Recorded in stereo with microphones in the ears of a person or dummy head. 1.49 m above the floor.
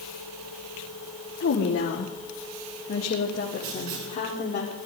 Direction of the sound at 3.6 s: 65° right (ahead or behind).